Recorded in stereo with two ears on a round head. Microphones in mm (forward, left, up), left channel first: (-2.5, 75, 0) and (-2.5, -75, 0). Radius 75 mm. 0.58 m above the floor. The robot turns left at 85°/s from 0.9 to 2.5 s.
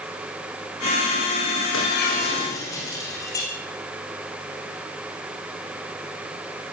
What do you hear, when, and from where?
1.7 s breaking glass: 85° left, 9 m; by 3.5 s 20° left, 9 m